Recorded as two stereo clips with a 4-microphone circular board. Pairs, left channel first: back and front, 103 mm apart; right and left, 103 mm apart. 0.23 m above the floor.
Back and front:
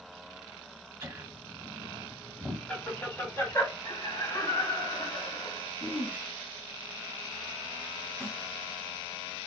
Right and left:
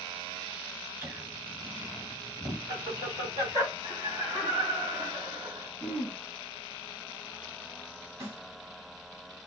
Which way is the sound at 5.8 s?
155° left.